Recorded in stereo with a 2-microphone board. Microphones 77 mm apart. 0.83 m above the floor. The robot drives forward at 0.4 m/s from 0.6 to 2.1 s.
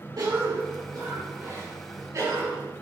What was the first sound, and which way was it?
A cough, 55° right (ahead or behind).